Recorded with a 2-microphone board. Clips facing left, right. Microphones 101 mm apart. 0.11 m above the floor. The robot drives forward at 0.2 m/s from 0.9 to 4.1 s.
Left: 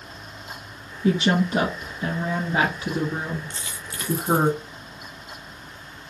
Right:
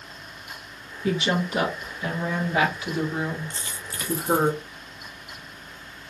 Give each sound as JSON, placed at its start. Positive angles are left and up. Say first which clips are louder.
{"t": 1.0, "sound": "a woman speaking", "louder": "left 4 dB", "side_deg": 30, "distance_m": 1.3}
{"t": 3.5, "sound": "a dropped coin", "louder": "even", "side_deg": -40, "distance_m": 0.5}